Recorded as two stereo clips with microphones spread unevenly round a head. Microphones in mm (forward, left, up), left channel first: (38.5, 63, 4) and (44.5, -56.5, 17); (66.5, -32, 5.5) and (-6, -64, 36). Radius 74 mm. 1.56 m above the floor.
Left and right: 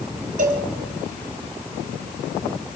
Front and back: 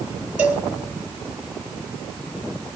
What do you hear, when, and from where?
0.4 s a cowbell: 85° right, 3.5 m